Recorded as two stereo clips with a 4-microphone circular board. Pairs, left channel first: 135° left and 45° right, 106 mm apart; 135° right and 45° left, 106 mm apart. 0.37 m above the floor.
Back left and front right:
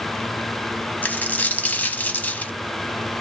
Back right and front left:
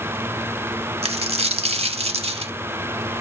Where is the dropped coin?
60° left, 0.6 m.